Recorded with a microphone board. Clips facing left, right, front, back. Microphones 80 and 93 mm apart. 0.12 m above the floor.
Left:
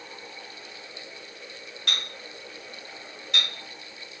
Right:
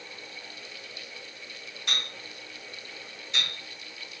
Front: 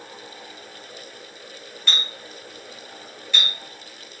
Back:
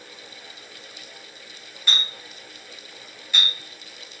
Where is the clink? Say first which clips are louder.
Left 1 dB, even; 100° left, 1.4 m.